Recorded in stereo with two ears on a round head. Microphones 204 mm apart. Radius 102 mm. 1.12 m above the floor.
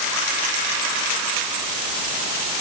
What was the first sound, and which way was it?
Only background noise.